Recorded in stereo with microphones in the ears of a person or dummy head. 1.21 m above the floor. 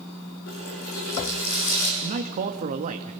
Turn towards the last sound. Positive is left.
turn(degrees=-40)  # may be behind; listen again after turning